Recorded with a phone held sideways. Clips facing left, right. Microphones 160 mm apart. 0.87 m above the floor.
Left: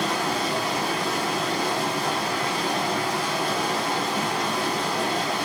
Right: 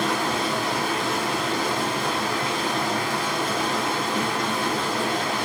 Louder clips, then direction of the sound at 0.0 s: Right 1 dB; 85° right.